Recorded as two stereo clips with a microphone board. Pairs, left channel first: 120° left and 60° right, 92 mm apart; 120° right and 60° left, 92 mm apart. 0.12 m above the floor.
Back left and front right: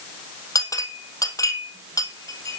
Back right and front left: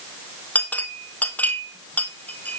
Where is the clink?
170° left, 1.9 m.